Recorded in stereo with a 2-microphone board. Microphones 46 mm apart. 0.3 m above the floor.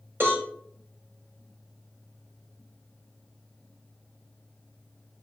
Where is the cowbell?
50° right (ahead or behind), 4.5 m.